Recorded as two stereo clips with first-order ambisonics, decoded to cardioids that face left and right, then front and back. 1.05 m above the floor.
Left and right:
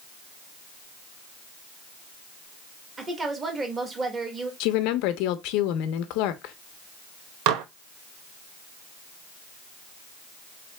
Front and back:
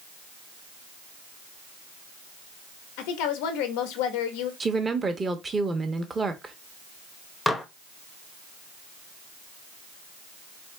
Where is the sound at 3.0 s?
15° right, 1.1 m.